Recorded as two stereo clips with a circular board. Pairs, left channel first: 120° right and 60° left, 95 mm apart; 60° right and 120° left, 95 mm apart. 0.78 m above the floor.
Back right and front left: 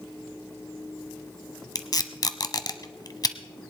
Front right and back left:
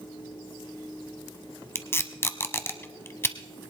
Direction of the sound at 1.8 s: 110° right.